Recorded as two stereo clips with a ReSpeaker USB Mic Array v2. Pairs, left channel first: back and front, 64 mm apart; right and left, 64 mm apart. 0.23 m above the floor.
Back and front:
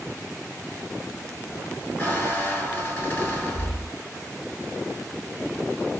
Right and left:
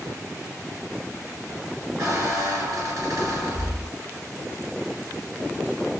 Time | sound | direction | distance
2.0 | a squeak | 120° left | 1.6 m